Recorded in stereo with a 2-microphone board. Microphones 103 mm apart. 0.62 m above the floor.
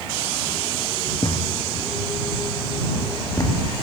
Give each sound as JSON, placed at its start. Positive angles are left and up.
{"t": 1.2, "sound": "a thud", "side_deg": 40}